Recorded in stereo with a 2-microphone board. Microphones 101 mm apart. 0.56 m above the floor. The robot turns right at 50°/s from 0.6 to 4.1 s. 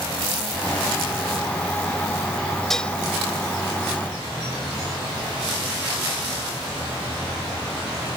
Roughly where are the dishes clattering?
Centre.